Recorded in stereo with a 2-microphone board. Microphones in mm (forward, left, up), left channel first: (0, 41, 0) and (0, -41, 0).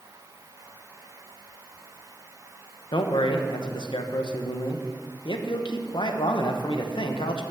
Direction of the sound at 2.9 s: 80° left.